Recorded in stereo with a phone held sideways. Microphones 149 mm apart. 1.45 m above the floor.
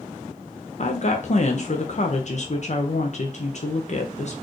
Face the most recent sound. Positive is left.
turn(degrees=50)  # may be behind; listen again after turning